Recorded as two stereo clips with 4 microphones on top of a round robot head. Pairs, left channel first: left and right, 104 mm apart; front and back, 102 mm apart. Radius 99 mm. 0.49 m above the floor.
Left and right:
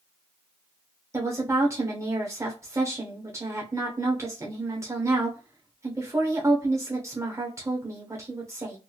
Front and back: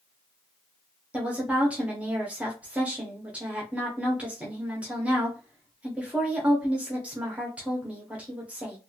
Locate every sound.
1.1 s a woman speaking: 115° right, 1.0 m